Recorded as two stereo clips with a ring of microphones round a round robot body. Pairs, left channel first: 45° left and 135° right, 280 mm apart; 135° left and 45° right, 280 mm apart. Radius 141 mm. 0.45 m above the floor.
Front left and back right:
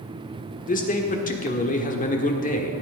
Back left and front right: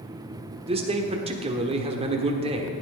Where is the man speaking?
10° left, 1.4 m.